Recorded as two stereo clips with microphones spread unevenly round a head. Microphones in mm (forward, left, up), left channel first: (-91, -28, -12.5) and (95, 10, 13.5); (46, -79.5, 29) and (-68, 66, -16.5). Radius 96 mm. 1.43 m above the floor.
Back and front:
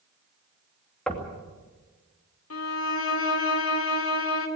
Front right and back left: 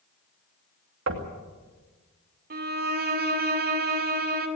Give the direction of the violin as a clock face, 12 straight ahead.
6 o'clock.